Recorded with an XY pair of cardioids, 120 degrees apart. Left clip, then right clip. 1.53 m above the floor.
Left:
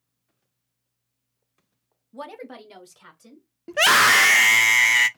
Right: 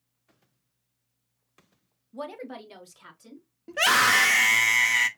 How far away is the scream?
About 0.6 m.